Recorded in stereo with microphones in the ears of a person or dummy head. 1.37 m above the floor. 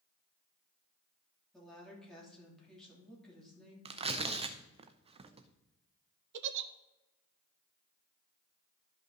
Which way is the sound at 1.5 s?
5° left (ahead or behind).